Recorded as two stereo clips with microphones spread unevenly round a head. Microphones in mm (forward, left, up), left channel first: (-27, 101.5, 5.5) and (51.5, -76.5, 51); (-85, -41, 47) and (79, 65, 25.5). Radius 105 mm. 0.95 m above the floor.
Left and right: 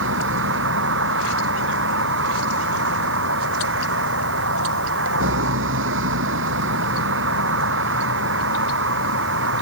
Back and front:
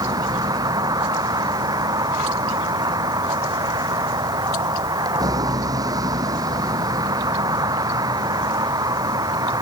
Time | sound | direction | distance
0.0 | a vehicle | 40° right | ?